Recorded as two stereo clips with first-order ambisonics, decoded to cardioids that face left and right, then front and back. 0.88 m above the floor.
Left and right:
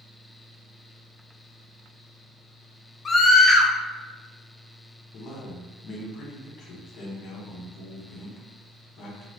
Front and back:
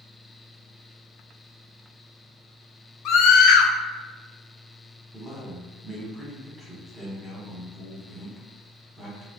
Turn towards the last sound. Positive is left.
turn(degrees=110)